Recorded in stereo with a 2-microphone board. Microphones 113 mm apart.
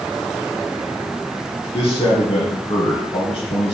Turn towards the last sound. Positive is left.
turn(degrees=50)  # may be behind; listen again after turning